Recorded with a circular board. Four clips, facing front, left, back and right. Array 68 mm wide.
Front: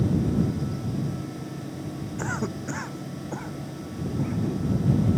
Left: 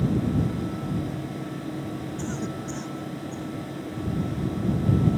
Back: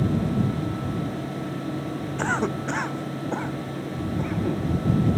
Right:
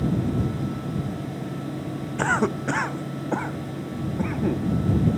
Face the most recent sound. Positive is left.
turn(degrees=-110)